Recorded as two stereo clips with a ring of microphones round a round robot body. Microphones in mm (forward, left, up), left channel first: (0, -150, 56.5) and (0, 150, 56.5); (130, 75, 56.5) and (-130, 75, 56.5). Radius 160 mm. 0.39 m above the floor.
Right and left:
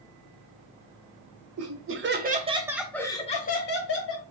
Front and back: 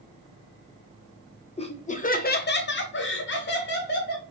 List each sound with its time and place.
1.6 s laughter: 65° left, 1.3 m; by 4.2 s 50° right, 1.5 m